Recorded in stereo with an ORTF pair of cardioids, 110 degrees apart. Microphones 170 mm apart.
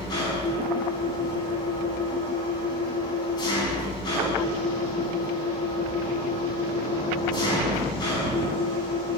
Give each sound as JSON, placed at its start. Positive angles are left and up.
{"t": 0.0, "sound": "an engine running", "azimuth_deg": 25, "distance_m": 3.0}